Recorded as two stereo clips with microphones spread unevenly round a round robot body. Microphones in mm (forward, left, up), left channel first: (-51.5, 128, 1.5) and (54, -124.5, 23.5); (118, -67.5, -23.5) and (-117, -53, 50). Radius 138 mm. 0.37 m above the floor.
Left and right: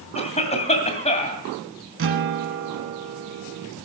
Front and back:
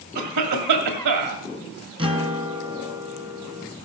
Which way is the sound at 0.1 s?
Straight behind.